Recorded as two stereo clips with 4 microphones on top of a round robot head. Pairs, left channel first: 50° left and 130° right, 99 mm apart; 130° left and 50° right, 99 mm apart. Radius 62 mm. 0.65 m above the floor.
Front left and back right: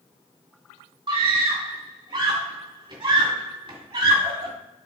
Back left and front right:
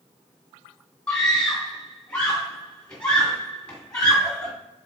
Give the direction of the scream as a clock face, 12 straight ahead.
5 o'clock.